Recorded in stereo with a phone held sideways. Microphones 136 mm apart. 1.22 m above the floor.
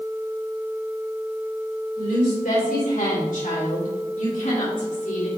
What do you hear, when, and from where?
2.0 s a woman speaking: 85° left, 4.5 m; by 5.3 s 65° left (ahead or behind), 3.5 m